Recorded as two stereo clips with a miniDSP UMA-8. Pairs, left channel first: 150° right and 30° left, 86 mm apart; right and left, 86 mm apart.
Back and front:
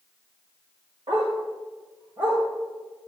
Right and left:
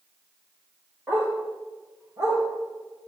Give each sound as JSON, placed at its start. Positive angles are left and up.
{"t": 1.1, "sound": "a dog barking", "azimuth_deg": 25, "distance_m": 6.0}